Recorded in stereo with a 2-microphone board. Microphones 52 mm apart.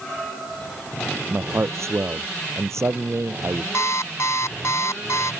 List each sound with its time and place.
1.3 s a man speaking: 60° right (ahead or behind)
3.7 s an alarm clock: 60° left (ahead or behind)